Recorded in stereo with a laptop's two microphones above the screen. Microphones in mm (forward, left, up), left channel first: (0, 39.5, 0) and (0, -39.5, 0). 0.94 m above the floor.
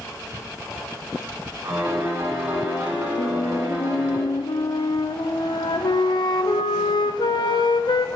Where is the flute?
70° left (ahead or behind), 0.5 m.